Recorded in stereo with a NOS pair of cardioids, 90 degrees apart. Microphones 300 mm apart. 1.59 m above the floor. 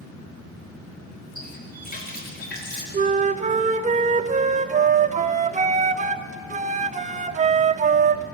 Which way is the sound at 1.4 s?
30° left.